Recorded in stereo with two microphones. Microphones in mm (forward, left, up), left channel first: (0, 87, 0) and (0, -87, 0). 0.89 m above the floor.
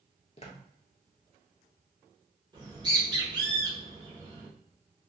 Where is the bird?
25° right (ahead or behind), 1.3 m.